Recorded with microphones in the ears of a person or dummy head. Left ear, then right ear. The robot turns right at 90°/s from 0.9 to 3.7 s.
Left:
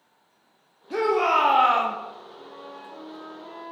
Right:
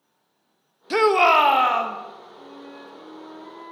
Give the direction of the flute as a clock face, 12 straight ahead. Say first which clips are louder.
Even; 2 o'clock.